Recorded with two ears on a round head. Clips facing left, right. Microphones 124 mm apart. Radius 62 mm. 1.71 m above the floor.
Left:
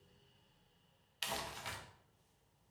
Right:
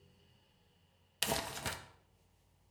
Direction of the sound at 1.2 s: 55° right (ahead or behind).